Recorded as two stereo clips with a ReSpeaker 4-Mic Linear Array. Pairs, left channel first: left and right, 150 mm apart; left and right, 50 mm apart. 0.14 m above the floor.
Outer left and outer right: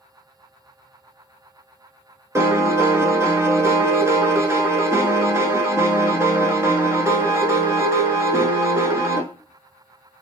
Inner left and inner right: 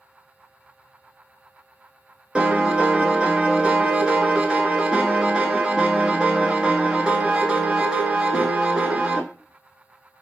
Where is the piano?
20° right (ahead or behind), 0.7 m.